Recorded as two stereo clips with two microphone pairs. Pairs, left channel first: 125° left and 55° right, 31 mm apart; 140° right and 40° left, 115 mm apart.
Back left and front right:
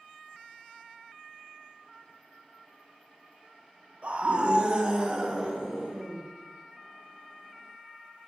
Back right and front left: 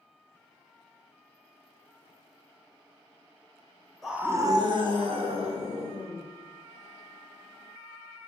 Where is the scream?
50° right, 0.6 m; by 6.2 s 15° left, 2.5 m.